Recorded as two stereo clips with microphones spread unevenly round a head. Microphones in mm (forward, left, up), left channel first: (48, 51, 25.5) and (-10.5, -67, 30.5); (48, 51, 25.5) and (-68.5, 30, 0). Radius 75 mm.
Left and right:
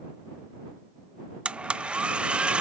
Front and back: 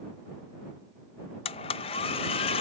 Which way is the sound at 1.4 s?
35° right.